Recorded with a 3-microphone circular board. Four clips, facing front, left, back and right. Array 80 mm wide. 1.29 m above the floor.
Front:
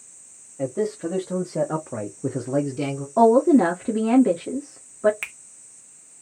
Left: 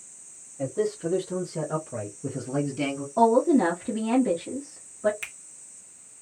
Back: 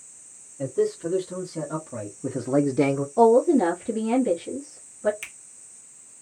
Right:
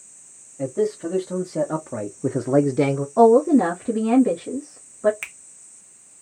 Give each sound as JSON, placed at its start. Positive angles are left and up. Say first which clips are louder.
{"t": 0.6, "sound": "a man speaking", "louder": "right 4 dB, back 1 dB", "azimuth_deg": -25, "distance_m": 1.8}
{"t": 3.2, "sound": "a woman speaking", "louder": "right 5 dB, front 2 dB", "azimuth_deg": -20, "distance_m": 1.5}
{"t": 5.2, "sound": "a finger snap", "louder": "right 3 dB, front 6 dB", "azimuth_deg": -25, "distance_m": 0.9}